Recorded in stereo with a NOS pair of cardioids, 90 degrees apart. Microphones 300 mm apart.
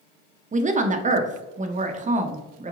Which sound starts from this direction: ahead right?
A woman speaking, at 0.5 s.